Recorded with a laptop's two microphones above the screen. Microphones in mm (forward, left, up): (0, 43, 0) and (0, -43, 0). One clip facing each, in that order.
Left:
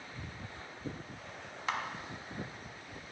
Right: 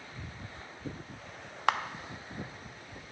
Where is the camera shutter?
70° right (ahead or behind), 0.5 m.